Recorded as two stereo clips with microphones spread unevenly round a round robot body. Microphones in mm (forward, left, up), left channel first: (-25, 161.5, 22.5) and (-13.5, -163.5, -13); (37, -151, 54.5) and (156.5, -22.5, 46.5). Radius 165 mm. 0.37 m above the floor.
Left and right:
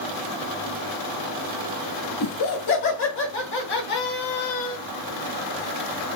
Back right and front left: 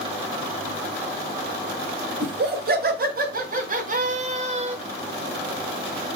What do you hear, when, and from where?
2.2 s laughter: 40° left, 2.5 m; by 4.8 s 30° left, 1.3 m